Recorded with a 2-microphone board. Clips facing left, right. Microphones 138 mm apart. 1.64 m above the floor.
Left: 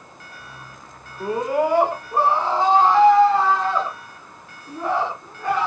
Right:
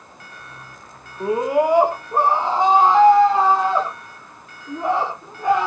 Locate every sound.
1.2 s a scream: 10° right (ahead or behind), 2.5 m; by 5.7 s 20° right (ahead or behind), 6.5 m